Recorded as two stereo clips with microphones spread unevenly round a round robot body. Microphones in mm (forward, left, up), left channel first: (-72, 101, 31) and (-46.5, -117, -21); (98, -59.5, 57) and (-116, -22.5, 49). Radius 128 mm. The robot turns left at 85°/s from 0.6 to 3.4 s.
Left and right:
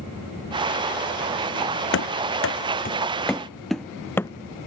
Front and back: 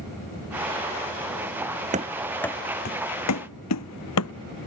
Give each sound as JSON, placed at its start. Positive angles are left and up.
{"t": 1.9, "sound": "running footsteps", "azimuth_deg": 110}